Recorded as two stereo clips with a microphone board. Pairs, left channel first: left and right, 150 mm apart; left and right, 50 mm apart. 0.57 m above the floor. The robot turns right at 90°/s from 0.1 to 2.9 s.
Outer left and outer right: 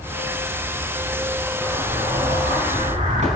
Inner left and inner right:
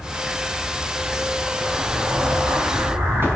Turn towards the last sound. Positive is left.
turn(degrees=-55)